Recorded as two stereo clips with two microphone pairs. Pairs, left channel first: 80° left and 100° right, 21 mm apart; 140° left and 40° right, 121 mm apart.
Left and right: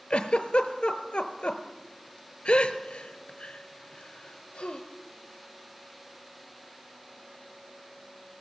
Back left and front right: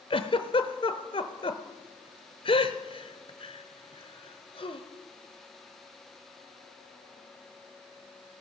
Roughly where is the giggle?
Left.